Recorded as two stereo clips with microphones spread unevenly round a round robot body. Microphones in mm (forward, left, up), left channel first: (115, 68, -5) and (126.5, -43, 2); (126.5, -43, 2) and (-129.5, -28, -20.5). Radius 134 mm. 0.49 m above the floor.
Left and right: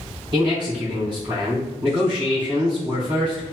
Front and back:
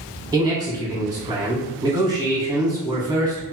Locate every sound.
0.3 s a man speaking: 120° right, 1.3 m